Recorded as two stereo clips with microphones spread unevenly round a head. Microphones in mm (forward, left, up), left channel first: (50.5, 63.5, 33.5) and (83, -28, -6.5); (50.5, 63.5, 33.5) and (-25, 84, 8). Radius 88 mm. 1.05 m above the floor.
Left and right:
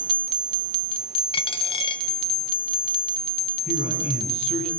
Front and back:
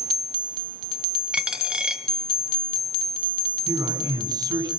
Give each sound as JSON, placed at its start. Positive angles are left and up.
{"t": 1.3, "sound": "a dropped coin", "azimuth_deg": 85, "distance_m": 3.0}
{"t": 3.7, "sound": "a man speaking", "azimuth_deg": 125, "distance_m": 9.5}